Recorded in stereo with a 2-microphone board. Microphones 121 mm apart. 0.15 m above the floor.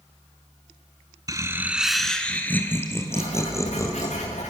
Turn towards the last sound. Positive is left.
turn(degrees=65)  # may be behind; listen again after turning